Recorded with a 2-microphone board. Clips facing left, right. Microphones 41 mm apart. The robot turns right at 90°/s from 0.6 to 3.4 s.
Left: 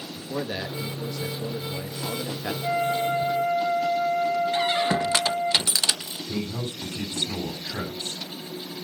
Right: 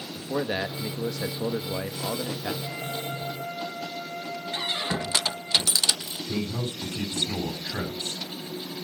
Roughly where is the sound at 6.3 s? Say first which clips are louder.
Right 1 dB; centre.